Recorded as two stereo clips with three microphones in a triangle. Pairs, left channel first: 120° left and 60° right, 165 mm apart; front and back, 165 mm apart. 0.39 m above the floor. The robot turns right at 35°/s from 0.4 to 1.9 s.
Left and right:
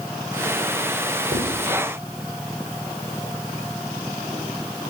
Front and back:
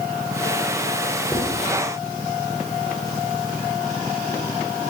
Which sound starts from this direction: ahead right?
Writing, at 1.3 s.